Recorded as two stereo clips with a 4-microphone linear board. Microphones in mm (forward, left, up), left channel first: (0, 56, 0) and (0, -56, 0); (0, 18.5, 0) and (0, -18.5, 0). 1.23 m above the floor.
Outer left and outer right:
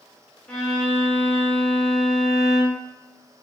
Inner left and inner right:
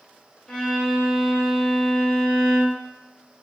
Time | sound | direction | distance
0.5 | a violin | 10° left (ahead or behind) | 0.7 m